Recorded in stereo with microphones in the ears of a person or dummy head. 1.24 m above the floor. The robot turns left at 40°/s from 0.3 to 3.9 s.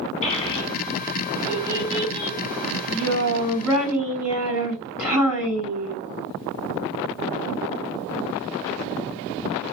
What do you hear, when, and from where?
0.2 s a child speaking: 40° left, 2.0 m; by 6.0 s 105° right, 2.0 m